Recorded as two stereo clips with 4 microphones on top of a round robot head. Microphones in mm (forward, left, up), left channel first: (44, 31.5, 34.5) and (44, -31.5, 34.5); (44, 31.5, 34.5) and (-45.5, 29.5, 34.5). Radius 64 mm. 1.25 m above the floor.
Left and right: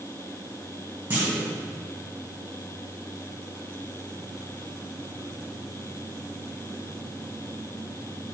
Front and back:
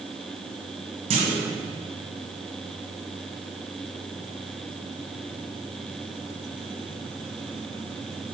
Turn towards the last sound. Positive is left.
turn(degrees=-165)